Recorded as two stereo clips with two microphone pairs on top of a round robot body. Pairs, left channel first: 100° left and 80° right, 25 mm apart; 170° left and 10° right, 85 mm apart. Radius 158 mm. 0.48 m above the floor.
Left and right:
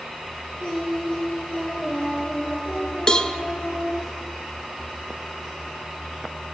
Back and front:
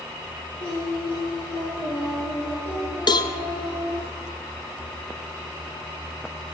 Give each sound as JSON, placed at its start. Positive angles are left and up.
{"t": 0.6, "sound": "singing", "azimuth_deg": 140, "distance_m": 7.5}
{"t": 3.1, "sound": "a cowbell", "azimuth_deg": 160, "distance_m": 1.0}